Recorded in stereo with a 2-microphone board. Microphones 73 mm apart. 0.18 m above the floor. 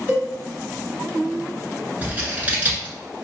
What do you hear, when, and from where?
0.1 s a cowbell: 30° right (ahead or behind), 1.1 m
2.0 s scissors: 25° right (ahead or behind), 0.8 m